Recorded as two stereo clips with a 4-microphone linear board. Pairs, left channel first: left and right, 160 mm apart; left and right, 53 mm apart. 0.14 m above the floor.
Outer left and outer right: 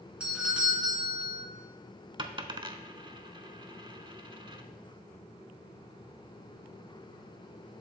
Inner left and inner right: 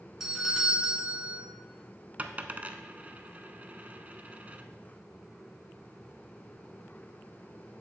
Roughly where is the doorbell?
Centre.